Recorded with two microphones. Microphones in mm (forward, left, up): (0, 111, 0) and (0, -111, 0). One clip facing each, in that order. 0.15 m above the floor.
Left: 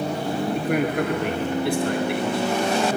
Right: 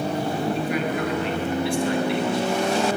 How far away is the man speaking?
About 2.5 m.